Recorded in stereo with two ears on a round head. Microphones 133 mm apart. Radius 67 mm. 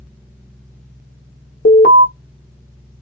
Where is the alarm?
60° left (ahead or behind), 0.8 m.